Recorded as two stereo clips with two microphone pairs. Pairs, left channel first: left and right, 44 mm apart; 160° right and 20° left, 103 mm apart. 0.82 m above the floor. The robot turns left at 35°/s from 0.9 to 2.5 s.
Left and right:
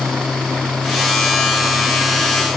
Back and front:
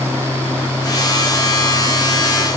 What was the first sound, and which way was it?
Only background noise.